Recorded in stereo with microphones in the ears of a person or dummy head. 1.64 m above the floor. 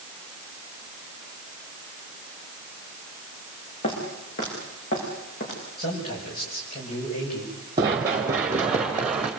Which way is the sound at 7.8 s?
15° right (ahead or behind).